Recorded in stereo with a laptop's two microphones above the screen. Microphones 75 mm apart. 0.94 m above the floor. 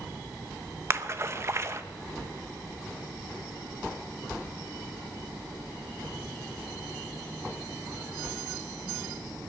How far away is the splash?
About 1.0 m.